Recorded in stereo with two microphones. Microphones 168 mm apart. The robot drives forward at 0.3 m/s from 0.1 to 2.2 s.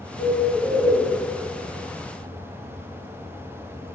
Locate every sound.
0.2 s a bird: 65° left (ahead or behind), 0.9 m; by 1.0 s 55° left (ahead or behind), 1.0 m